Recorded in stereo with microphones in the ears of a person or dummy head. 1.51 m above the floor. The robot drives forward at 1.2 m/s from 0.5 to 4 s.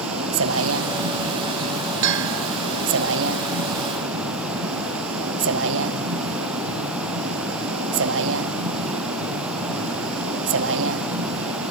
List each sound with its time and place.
0.0 s a vehicle: 85° right
2.0 s a bell: 65° right (ahead or behind)